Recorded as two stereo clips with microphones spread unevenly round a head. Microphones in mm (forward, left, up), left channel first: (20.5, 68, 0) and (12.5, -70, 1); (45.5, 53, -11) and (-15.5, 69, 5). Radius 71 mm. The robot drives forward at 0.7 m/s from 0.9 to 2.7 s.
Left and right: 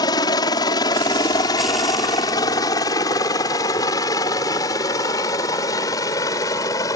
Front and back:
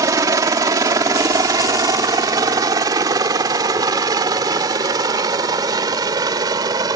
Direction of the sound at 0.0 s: 150° left.